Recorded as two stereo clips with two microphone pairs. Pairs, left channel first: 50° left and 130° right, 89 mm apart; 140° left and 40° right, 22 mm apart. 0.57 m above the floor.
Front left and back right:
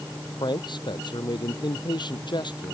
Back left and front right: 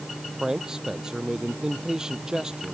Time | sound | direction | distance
0.4 | a man speaking | 20° left | ?